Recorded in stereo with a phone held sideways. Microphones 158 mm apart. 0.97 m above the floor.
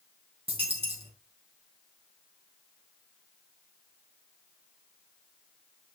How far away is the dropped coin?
About 3.5 m.